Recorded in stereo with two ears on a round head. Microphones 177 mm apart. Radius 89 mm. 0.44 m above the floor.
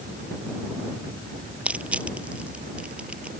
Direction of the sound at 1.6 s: 5° right (ahead or behind).